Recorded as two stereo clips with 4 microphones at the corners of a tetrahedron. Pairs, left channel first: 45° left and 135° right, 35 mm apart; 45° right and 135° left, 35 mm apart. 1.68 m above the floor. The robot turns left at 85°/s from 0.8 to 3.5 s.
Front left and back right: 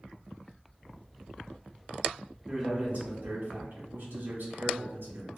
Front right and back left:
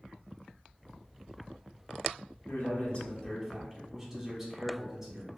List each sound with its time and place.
2.5 s a man speaking: 50° right, 1.2 m; by 5.3 s 140° right, 1.2 m